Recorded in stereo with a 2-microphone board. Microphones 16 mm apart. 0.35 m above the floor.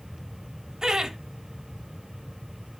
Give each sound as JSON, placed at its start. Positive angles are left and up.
{"t": 0.8, "sound": "laughter", "side_deg": -50, "distance_m": 1.3}